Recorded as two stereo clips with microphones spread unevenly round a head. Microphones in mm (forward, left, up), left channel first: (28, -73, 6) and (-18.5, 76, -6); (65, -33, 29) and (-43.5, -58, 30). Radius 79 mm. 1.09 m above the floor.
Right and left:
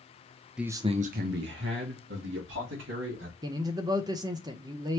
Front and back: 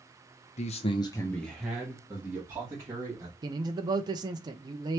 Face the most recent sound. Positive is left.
turn(degrees=155)